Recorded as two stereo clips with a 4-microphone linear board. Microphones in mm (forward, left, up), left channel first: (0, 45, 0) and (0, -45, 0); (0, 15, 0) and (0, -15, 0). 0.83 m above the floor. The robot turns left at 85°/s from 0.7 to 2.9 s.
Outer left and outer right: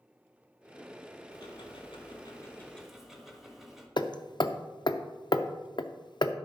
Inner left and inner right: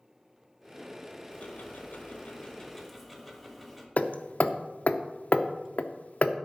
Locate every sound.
1.3 s ticking: 130° left, 1.4 m; by 3.9 s 5° right, 1.4 m
4.0 s hammering: 55° left (ahead or behind), 0.6 m